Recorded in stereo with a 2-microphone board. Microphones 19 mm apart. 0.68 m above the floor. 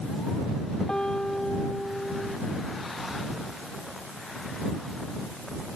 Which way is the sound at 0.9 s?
45° left (ahead or behind).